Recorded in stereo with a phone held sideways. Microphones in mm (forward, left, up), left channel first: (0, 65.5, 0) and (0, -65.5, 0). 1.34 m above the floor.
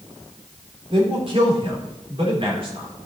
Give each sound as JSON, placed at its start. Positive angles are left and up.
{"t": 0.9, "sound": "a man speaking", "side_deg": -45, "distance_m": 4.0}